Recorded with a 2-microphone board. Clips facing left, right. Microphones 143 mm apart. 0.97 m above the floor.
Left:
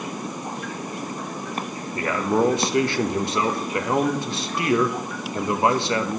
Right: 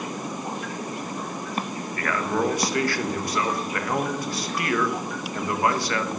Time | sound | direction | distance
1.9 | a man speaking | 25° left (ahead or behind) | 0.7 m